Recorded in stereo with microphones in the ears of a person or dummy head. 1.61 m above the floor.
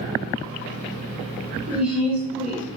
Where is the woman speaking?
5° right (ahead or behind), 0.9 m.